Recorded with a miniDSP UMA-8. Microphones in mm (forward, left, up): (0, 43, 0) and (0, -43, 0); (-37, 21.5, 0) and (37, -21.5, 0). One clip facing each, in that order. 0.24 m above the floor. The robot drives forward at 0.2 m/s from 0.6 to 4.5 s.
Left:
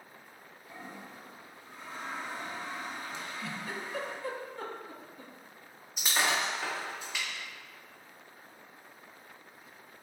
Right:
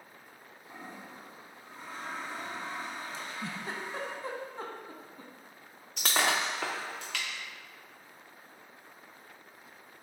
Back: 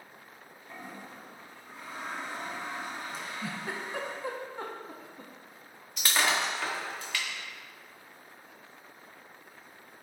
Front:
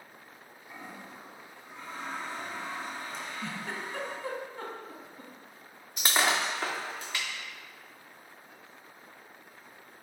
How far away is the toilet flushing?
About 1.0 m.